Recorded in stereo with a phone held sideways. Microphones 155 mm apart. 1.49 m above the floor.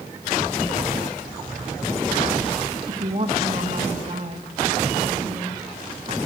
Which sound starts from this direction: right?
A woman speaking, at 2.9 s.